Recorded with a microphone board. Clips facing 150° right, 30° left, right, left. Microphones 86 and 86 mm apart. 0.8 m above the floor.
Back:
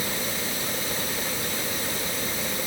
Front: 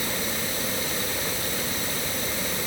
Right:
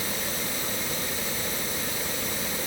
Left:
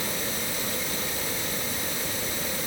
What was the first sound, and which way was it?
Only background noise.